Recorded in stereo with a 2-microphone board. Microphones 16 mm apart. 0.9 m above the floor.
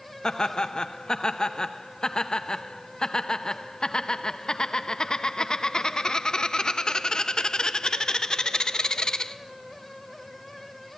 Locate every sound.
0.2 s laughter: 45° left (ahead or behind), 1.0 m